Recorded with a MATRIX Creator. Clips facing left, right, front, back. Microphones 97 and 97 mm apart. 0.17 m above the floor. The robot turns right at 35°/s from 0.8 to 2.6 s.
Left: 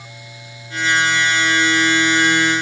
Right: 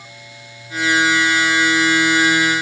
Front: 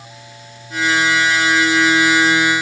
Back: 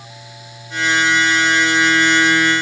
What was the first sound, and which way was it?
Only background noise.